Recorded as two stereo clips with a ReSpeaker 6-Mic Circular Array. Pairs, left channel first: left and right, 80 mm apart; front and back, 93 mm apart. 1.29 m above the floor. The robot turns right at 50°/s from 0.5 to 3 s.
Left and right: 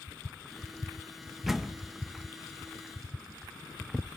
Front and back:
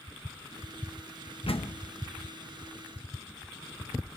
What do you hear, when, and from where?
1.5 s a door slam: 5° right, 1.1 m; by 1.8 s 15° left, 1.1 m